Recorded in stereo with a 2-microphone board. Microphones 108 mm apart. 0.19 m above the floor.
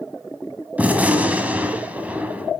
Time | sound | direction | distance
0.8 | a gunshot | 15° right (ahead or behind) | 1.4 m